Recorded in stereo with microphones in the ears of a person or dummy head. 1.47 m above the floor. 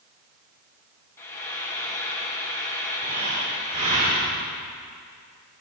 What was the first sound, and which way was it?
Frying, 10° left (ahead or behind).